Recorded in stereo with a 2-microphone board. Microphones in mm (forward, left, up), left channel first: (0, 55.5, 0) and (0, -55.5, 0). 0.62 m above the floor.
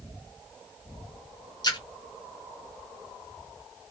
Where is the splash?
35° left (ahead or behind), 0.7 m.